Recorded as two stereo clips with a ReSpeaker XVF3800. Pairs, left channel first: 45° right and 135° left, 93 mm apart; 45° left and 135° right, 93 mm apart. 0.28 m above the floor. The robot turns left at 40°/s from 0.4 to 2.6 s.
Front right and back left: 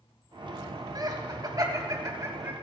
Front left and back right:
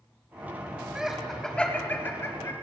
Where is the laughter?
145° left, 2 m; by 2.5 s 85° left, 2 m.